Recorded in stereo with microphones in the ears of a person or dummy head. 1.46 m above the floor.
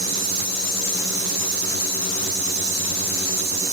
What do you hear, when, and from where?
Only background noise.